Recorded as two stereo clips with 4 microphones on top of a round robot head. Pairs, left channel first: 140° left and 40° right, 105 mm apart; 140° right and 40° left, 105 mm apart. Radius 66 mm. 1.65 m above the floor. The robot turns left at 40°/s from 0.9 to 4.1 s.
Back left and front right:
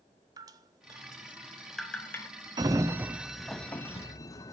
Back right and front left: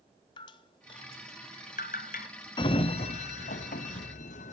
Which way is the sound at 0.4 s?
95° right.